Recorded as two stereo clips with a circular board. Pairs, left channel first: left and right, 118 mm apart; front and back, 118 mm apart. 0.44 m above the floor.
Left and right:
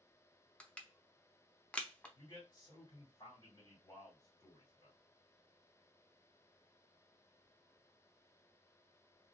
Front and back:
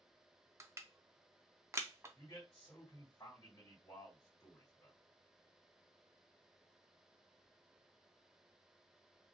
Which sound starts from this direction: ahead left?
A man speaking, at 2.1 s.